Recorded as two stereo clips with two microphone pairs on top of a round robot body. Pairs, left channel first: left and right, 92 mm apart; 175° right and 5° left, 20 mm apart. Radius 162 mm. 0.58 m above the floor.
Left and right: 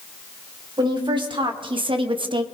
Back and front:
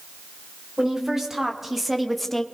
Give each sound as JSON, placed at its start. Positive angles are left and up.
{"t": 0.8, "sound": "a woman speaking", "azimuth_deg": -60, "distance_m": 3.0}